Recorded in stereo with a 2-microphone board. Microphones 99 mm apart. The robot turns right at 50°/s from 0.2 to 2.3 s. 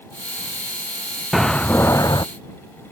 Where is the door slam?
Straight ahead; by 2.2 s 45° left.